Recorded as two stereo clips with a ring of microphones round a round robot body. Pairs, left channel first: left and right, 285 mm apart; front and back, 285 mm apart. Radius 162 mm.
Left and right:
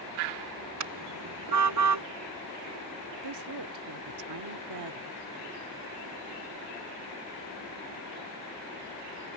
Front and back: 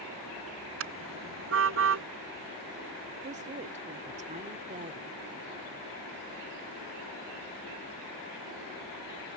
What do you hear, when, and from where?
0.8 s a car horn: 130° right
3.2 s a woman speaking: 115° right